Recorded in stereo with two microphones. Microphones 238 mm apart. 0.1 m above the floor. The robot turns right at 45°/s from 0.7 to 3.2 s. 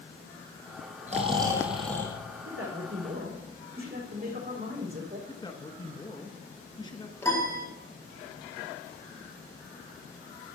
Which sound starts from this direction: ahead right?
Snoring, at 1.1 s.